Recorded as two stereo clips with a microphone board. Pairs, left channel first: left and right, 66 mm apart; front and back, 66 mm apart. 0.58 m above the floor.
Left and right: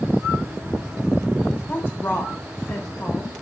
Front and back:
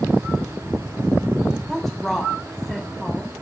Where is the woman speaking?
85° left, 1.1 m.